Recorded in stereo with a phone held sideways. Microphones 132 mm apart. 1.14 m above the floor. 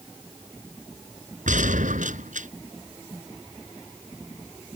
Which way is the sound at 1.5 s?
70° right (ahead or behind).